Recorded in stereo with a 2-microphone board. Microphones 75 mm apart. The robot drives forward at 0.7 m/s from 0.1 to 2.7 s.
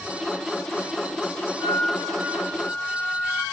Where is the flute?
55° left (ahead or behind), 2.5 m; by 3.4 s 45° left (ahead or behind), 3 m.